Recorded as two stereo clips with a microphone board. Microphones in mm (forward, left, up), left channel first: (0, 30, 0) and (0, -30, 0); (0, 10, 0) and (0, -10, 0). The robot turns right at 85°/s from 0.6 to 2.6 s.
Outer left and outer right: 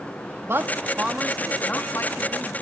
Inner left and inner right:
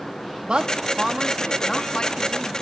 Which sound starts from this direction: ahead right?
A woman speaking, at 0.4 s.